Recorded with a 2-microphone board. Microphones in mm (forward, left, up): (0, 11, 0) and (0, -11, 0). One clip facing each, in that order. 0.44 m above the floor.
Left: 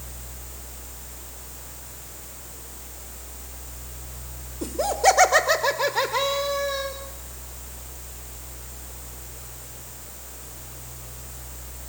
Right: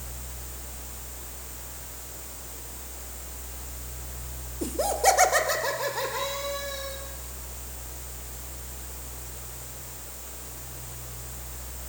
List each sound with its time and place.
4.6 s laughter: 5° left (ahead or behind), 1.9 m; by 6.9 s 45° left (ahead or behind), 2.5 m